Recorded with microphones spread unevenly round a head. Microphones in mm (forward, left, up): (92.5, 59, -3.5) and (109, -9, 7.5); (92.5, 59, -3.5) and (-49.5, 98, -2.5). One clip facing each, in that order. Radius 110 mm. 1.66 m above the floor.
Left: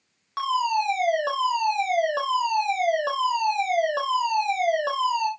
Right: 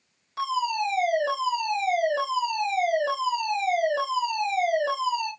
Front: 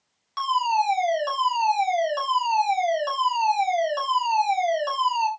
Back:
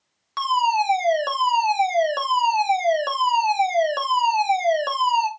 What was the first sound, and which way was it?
A fire alarm, 140° left.